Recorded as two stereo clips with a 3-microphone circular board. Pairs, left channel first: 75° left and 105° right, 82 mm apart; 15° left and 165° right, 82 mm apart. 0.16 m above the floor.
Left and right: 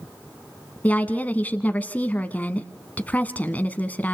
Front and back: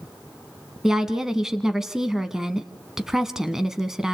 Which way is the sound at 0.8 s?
120° left.